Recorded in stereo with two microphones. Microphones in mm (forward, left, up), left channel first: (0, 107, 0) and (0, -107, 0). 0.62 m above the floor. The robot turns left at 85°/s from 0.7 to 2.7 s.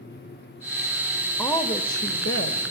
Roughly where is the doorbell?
I don't hear a doorbell.